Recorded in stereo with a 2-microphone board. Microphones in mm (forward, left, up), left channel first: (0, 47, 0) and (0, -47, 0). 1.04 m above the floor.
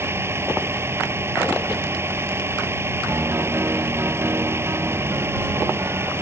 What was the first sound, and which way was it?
A vehicle, 25° right (ahead or behind).